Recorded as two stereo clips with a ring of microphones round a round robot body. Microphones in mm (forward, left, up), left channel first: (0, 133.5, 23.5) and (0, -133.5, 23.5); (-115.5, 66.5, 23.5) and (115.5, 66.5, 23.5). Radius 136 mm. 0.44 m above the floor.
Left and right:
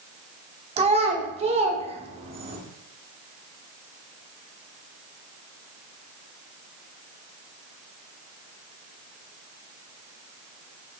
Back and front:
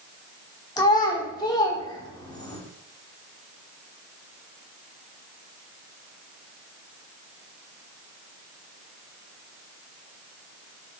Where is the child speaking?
125° right, 0.7 m.